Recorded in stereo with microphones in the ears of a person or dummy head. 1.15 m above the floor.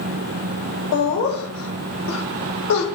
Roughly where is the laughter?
Left.